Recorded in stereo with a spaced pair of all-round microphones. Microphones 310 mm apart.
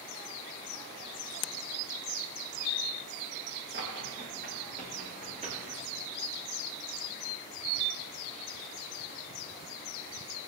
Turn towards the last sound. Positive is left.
turn(degrees=-20)  # may be behind; listen again after turning